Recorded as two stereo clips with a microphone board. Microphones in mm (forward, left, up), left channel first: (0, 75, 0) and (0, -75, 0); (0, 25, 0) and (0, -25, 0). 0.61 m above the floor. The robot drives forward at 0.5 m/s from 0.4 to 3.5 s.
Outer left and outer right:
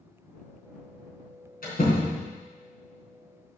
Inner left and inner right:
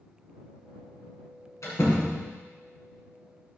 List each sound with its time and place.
1.6 s a door slam: 75° left (ahead or behind), 4 m